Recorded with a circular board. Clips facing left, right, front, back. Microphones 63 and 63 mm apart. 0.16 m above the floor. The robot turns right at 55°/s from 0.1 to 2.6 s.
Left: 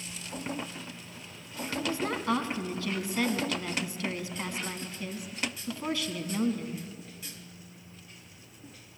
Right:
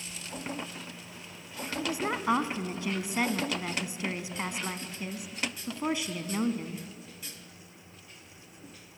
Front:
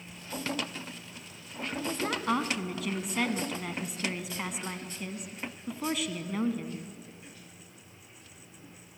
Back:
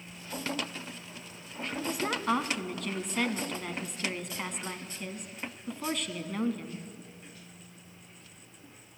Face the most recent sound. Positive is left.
turn(degrees=-85)